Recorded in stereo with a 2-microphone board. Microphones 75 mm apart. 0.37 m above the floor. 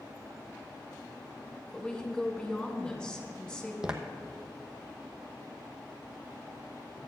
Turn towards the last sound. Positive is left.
turn(degrees=-10)  # may be behind; listen again after turning